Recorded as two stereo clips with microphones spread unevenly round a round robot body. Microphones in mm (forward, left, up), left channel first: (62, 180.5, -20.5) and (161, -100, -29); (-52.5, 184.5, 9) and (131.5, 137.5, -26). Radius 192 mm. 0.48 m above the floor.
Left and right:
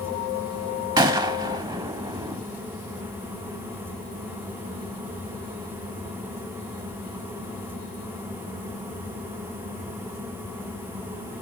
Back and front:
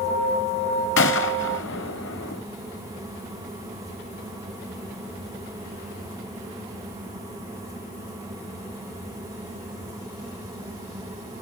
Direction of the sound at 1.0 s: 150° right.